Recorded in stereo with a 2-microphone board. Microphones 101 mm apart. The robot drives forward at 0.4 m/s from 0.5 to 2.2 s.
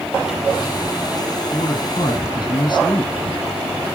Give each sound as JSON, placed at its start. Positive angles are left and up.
{"t": 1.5, "sound": "a man speaking", "side_deg": 50, "distance_m": 1.6}